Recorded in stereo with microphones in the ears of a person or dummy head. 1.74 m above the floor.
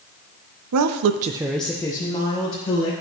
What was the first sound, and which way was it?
A woman speaking, 75° right (ahead or behind).